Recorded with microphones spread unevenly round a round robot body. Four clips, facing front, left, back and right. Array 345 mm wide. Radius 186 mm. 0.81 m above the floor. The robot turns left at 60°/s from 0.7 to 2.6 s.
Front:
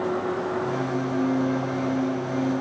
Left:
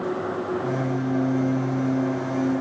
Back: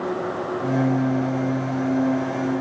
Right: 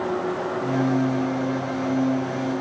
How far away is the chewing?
No chewing in this recording.